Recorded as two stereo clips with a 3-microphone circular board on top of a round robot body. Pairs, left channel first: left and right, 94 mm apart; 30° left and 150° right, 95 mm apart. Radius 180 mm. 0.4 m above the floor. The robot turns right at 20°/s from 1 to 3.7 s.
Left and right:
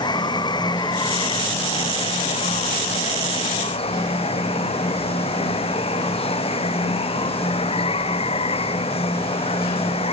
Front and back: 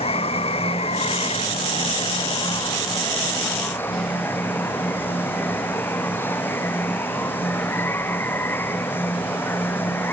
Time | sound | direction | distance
0.0 | running water | 45° left | ?